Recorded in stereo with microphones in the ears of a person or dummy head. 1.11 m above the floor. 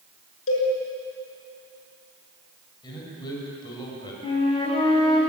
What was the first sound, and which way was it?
A cowbell, 65° left (ahead or behind).